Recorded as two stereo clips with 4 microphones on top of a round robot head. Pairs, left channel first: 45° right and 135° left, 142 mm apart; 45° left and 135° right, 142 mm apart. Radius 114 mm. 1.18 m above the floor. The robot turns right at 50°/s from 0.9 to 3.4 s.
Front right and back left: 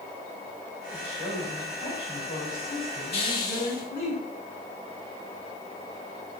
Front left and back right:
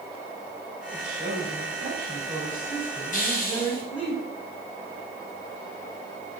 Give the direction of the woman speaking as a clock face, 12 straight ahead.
5 o'clock.